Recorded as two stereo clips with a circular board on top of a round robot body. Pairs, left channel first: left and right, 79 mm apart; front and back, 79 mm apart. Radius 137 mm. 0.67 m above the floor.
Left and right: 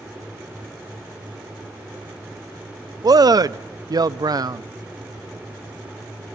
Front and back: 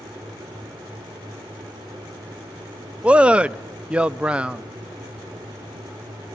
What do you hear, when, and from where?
3.0 s a man speaking: 105° right, 0.7 m